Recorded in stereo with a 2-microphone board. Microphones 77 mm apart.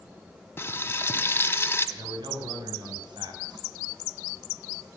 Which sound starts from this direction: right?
A man speaking, at 2.0 s.